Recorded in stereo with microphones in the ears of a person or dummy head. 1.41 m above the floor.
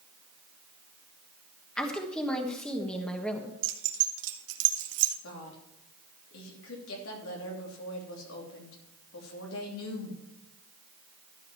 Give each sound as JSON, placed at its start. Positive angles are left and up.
{"t": 1.8, "sound": "a woman speaking", "side_deg": 5, "distance_m": 1.3}
{"t": 3.6, "sound": "keys jangling", "side_deg": -70, "distance_m": 1.2}
{"t": 5.2, "sound": "a woman speaking", "side_deg": 75, "distance_m": 3.0}